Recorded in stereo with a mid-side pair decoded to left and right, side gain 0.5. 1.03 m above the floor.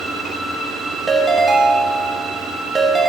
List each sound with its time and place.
1.1 s a ringtone: 20° right, 1.0 m